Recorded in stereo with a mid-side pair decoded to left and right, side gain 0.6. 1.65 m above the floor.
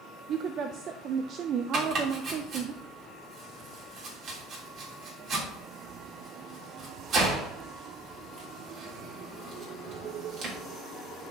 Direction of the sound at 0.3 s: 50° right.